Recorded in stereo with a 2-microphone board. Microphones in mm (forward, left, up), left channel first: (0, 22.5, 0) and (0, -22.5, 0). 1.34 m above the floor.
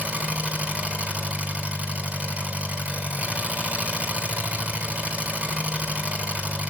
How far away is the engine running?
About 5 m.